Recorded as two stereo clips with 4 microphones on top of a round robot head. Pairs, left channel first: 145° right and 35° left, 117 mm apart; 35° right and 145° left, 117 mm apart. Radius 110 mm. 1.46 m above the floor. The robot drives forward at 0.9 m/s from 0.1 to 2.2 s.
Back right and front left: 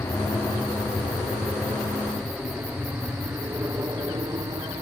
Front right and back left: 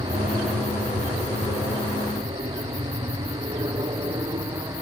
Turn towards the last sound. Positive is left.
turn(degrees=90)